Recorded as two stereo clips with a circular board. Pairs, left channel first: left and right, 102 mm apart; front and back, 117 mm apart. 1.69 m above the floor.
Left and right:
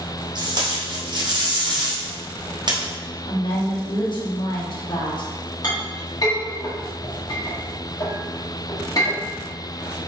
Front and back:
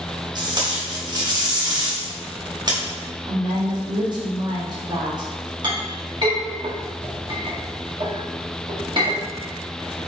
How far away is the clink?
About 1.8 m.